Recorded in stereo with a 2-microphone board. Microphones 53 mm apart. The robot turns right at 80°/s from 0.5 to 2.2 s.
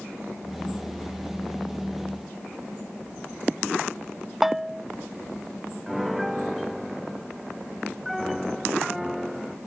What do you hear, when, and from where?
4.4 s a bell: 5° right (ahead or behind)
5.9 s a piano: 5° right (ahead or behind)